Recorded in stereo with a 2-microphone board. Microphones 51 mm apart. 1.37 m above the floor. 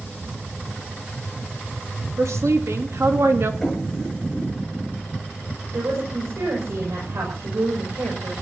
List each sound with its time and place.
2.2 s a woman speaking: 80° right, 3 m; by 3.5 s 55° right (ahead or behind), 2.5 m
3.6 s knocking: centre (ahead or behind), 7 m
5.7 s a woman speaking: 75° right (ahead or behind), 7 m